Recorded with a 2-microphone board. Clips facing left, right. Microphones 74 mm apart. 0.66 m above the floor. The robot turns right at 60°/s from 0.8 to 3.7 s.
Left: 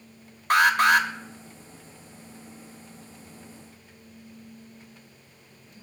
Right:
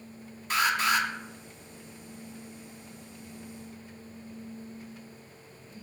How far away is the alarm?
About 0.9 m.